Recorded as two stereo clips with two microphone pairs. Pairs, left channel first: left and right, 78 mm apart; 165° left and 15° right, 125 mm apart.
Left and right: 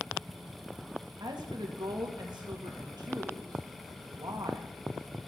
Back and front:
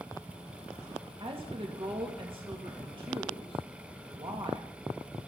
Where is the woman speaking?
65° right, 2 m.